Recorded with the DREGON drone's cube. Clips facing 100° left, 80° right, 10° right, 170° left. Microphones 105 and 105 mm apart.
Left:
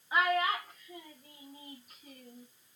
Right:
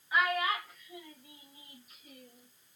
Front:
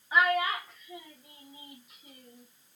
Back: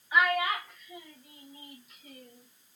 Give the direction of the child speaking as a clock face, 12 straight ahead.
11 o'clock.